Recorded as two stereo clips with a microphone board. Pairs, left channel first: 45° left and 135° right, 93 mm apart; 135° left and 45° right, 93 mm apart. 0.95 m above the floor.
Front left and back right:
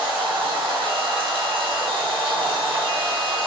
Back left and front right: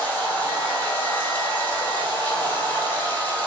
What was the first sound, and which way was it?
Running water, 155° right.